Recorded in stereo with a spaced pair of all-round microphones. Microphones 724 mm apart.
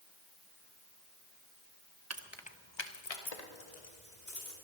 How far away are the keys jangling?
About 0.8 m.